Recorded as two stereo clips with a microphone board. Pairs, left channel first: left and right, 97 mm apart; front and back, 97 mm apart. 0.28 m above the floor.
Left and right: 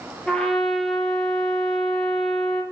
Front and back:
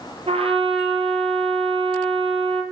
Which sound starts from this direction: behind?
A trumpet, at 0.3 s.